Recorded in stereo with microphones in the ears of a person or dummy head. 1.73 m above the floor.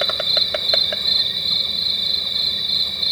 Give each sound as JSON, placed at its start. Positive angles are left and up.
{"t": 0.0, "sound": "an insect", "side_deg": 0}